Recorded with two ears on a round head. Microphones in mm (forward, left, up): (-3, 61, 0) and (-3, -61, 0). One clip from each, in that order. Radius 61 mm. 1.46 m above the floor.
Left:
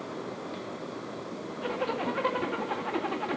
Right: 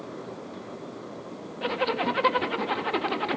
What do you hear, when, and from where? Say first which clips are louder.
1.6 s a zipper: right 5 dB; 70° right (ahead or behind), 1.6 m